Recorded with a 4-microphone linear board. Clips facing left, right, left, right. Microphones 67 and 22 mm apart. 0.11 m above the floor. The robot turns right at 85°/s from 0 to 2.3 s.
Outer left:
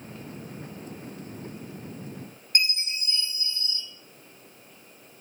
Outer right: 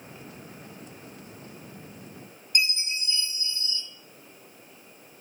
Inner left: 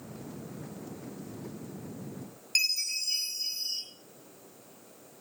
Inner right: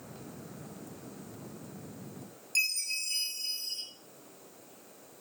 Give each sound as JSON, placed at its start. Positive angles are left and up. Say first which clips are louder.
{"t": 2.5, "sound": "a chime", "louder": "outer right 1 dB, inner left 2 dB", "side_deg": 45, "distance_m": 2.5}